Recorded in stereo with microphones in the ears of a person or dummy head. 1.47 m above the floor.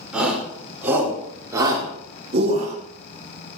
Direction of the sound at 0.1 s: Centre (ahead or behind).